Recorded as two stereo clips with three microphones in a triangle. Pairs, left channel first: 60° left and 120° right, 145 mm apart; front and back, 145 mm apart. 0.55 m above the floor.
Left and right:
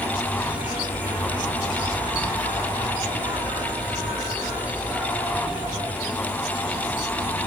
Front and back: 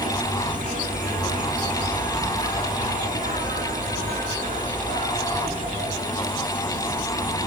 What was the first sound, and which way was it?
An insect, 165° left.